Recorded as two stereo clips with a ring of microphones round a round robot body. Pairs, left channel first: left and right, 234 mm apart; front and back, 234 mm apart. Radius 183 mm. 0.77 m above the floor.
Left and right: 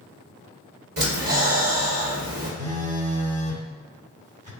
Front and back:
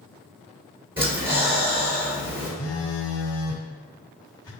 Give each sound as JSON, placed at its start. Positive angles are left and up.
{"t": 1.0, "sound": "breathing", "azimuth_deg": -105, "distance_m": 2.0}
{"t": 2.6, "sound": "a phone buzzing", "azimuth_deg": -40, "distance_m": 0.6}